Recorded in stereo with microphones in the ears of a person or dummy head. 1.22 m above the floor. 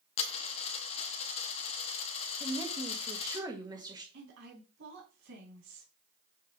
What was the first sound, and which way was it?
A dropped coin, 35° left (ahead or behind).